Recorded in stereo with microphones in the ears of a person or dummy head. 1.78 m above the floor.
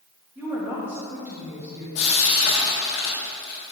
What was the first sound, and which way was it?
A woman speaking, 20° right (ahead or behind).